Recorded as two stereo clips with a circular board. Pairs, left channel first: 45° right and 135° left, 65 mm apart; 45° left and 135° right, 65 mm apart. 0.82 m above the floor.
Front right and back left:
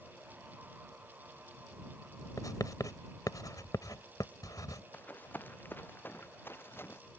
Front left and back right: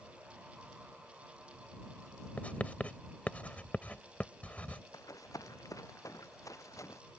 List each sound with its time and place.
2.4 s writing: 20° right
4.9 s running footsteps: 20° left; by 7.0 s 10° left